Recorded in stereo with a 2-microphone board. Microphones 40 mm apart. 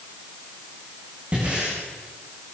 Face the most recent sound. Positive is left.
turn(degrees=-30)  # may be behind; listen again after turning